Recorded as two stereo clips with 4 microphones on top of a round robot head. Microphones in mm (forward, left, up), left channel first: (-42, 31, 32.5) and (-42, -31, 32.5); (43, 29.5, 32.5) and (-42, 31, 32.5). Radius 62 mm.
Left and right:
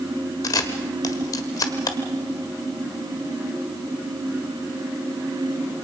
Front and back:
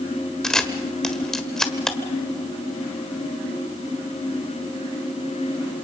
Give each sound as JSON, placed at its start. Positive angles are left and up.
{"t": 0.4, "sound": "a camera shutter", "azimuth_deg": 80, "distance_m": 1.5}